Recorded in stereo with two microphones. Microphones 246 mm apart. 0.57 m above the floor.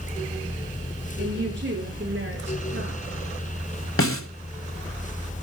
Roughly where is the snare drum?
Left.